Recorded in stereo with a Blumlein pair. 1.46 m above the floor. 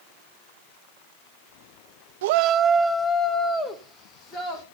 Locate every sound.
2.2 s a shout: 60° right, 0.6 m; by 4.6 s 25° left, 2.5 m